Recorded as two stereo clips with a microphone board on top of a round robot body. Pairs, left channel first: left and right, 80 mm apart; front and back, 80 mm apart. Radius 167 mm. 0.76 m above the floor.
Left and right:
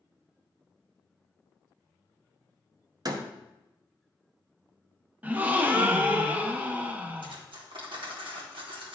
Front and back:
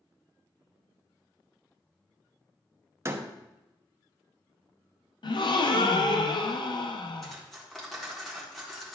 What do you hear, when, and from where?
3.0 s a door slam: 125° right, 1.0 m
5.2 s a gasp: 20° right, 0.8 m
7.2 s cutlery clinking: 90° right, 1.5 m